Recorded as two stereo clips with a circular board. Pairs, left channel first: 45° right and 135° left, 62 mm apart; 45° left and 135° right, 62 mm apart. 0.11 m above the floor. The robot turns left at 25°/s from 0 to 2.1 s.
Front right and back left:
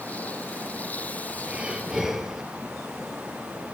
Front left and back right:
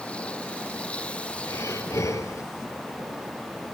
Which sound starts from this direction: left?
Breathing, at 1.5 s.